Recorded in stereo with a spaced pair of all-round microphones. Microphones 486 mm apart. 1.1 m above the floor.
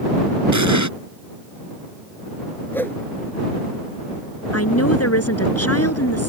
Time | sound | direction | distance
0.5 | an explosion | 35° right (ahead or behind) | ?
2.7 | a whoosh | 5° left (ahead or behind) | ?
4.5 | a woman speaking | 30° left (ahead or behind) | ?